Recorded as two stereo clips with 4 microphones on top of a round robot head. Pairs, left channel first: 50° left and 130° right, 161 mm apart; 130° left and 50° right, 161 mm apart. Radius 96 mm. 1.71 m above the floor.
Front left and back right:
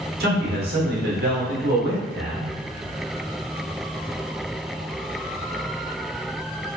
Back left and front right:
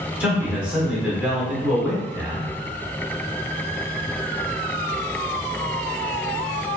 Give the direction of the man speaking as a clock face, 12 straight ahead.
4 o'clock.